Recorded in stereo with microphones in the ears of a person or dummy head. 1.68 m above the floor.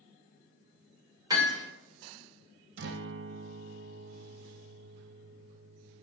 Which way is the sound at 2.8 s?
70° right (ahead or behind).